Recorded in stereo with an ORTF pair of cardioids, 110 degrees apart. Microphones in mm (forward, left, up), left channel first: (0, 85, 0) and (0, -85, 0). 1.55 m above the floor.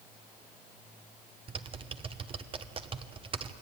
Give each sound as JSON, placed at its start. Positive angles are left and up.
{"t": 1.5, "sound": "typing on a keyboard", "azimuth_deg": -30, "distance_m": 1.2}